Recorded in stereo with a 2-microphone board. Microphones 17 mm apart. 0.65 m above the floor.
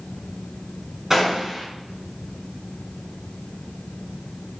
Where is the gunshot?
35° right (ahead or behind), 5 m.